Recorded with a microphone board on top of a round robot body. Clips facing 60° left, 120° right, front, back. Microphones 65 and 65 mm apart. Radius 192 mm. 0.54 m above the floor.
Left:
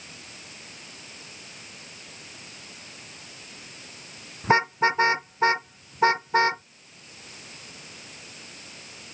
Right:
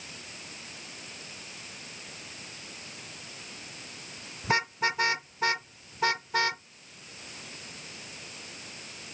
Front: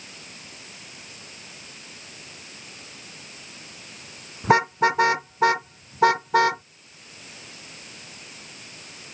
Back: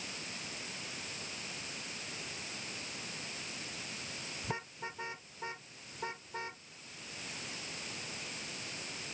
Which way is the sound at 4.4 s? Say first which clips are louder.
Left 7 dB, front 24 dB; straight ahead.